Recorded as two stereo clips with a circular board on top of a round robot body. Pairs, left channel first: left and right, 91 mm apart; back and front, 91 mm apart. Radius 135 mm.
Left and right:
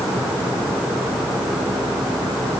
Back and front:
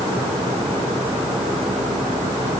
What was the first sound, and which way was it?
Only background noise.